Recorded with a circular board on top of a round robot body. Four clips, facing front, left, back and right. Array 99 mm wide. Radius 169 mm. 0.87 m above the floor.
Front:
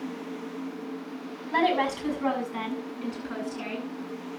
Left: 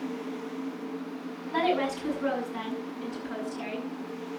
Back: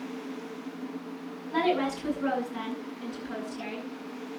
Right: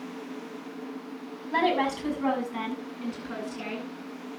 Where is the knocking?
No knocking in this recording.